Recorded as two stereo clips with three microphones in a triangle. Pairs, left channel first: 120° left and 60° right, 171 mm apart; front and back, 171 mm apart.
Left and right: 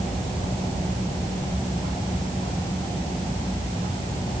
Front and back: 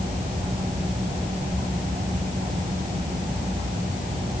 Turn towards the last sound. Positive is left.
No sound to turn to.